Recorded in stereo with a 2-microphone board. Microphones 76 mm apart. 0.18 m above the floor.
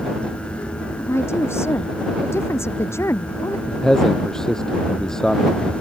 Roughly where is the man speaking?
Centre.